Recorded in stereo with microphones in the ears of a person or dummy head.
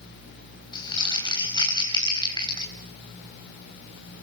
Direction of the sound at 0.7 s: 20° left (ahead or behind).